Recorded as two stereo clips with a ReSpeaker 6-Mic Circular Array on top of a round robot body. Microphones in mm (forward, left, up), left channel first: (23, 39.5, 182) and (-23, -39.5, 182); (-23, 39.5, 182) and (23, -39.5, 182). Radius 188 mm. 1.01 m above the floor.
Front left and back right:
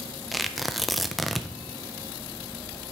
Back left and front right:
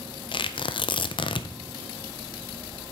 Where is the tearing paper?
150° left, 0.5 m.